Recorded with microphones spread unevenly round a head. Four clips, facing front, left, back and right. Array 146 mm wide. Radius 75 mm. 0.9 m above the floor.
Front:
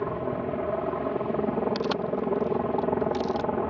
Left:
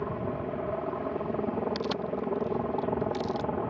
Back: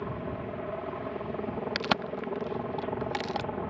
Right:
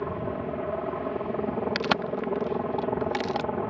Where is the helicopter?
10° right.